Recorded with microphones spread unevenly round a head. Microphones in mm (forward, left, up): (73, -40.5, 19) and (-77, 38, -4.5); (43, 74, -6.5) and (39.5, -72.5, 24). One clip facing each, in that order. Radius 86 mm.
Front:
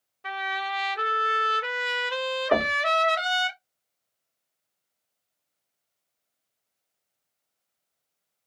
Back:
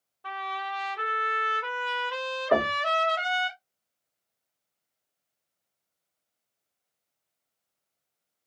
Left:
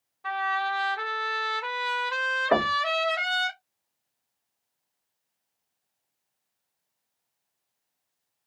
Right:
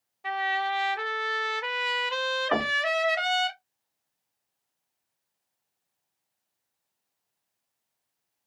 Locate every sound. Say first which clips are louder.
0.2 s a trumpet: front 3 dB, even; 55° right, 0.7 m
2.5 s knocking: back 1 dB, left 6 dB; 45° left, 1.0 m